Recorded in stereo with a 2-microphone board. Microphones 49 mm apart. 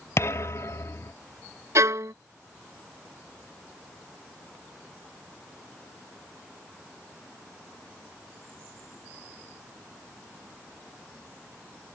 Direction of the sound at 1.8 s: 75° right (ahead or behind).